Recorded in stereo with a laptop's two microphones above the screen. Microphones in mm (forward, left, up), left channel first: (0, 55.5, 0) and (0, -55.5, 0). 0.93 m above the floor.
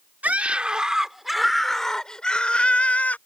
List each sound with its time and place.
0.2 s a scream: 15° right (ahead or behind); by 3.2 s 15° left (ahead or behind)